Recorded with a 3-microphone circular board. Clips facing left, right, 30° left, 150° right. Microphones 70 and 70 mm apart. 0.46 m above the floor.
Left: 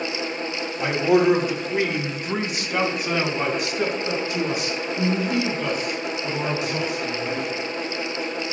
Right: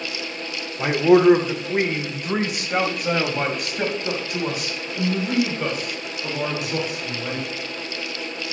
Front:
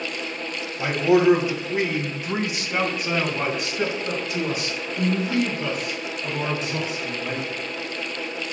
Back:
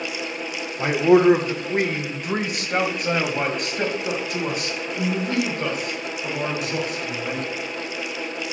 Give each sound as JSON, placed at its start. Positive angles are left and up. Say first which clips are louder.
{"t": 0.8, "sound": "a man speaking", "louder": "right 4 dB, back 3 dB", "azimuth_deg": -125, "distance_m": 0.9}